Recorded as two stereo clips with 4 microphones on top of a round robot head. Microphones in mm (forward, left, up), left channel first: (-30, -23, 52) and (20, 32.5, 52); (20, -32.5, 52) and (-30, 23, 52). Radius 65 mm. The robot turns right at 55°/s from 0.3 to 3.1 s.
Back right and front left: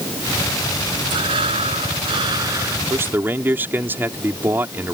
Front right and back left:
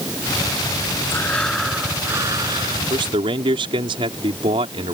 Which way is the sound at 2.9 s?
100° left.